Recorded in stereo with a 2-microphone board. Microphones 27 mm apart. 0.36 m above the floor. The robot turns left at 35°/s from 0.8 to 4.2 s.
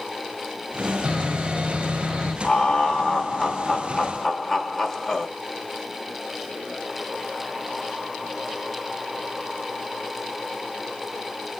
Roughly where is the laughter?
Left.